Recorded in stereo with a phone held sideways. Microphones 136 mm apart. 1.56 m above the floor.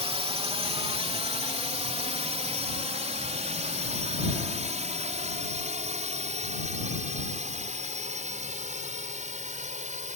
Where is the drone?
45° right (ahead or behind); by 10.2 s 60° right (ahead or behind).